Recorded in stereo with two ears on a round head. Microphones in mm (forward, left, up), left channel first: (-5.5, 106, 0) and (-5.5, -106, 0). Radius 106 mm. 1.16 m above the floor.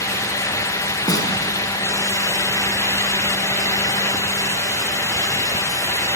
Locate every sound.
1.1 s a snare drum: 15° left (ahead or behind), 4.5 m